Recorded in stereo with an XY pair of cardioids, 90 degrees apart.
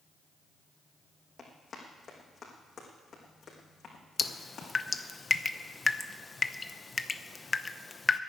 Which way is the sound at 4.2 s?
30° left.